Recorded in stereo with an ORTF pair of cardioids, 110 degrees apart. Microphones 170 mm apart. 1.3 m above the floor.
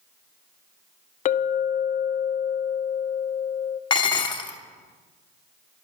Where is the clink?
50° left, 0.7 m.